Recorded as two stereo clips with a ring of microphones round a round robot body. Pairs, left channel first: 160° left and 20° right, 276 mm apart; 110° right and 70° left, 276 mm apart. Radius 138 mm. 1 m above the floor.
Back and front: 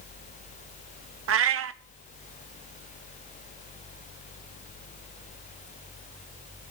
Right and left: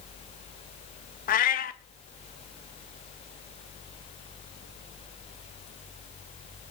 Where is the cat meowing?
55° right, 0.6 m.